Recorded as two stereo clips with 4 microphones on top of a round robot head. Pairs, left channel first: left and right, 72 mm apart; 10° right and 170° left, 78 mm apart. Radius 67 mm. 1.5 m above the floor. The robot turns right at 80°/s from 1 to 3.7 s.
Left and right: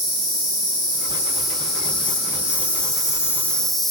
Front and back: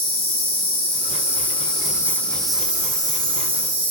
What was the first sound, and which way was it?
An insect, 35° right.